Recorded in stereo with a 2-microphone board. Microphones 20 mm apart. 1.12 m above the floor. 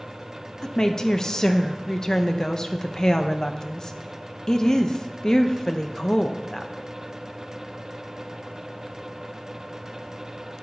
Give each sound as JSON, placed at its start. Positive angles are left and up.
{"t": 0.6, "sound": "a woman speaking", "side_deg": 35, "distance_m": 0.7}